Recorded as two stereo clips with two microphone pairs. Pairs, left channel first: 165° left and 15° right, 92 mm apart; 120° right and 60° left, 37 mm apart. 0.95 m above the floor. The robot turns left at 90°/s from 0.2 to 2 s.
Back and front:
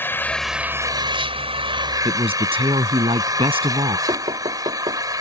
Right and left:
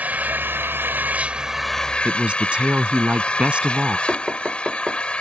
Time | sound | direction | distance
0.0 | an engine running | 100° left | ?
2.0 | a man speaking | straight ahead | ?
4.1 | knocking | 5° right | ?